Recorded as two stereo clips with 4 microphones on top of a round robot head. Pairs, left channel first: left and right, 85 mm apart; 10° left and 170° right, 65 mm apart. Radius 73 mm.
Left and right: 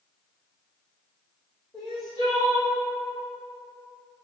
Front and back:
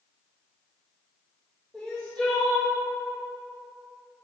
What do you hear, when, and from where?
1.7 s crying: 80° left, 0.6 m